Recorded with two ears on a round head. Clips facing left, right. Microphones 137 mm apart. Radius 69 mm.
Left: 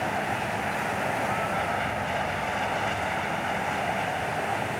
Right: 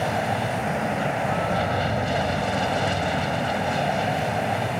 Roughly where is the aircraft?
Right.